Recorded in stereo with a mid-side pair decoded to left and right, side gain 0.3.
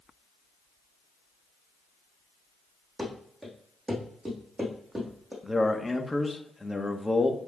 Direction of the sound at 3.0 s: 30° right.